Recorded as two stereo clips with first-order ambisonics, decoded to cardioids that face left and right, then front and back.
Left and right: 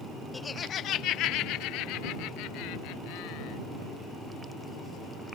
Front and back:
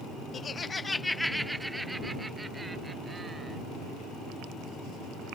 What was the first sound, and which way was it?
Laughter, 20° left.